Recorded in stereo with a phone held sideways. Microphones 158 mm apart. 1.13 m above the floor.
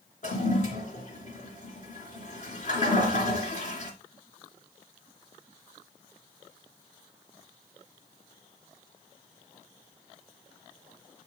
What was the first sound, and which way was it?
A toilet flushing, 50° left (ahead or behind).